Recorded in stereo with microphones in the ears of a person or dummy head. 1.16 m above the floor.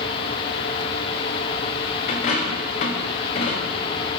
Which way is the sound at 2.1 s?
30° left (ahead or behind).